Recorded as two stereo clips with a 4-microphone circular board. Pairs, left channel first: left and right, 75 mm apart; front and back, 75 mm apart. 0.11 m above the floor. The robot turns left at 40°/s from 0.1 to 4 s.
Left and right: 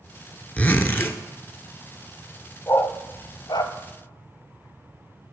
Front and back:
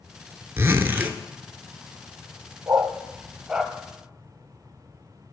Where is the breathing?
I don't hear breathing.